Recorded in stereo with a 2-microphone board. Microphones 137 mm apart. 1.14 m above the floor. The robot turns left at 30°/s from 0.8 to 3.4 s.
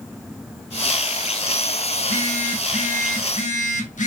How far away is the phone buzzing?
About 1.3 m.